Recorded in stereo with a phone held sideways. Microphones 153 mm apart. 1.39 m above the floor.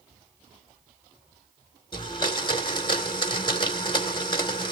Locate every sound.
1.9 s a blender: 35° left (ahead or behind), 1.9 m